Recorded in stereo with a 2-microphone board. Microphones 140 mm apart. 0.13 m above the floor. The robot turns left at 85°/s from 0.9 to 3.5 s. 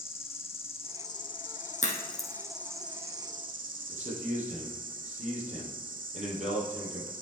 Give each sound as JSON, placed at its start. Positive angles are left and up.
{"t": 0.0, "sound": "an insect", "azimuth_deg": 135, "distance_m": 0.8}
{"t": 1.8, "sound": "a crack", "side_deg": 65, "distance_m": 2.5}
{"t": 3.9, "sound": "a man speaking", "side_deg": -55, "distance_m": 3.5}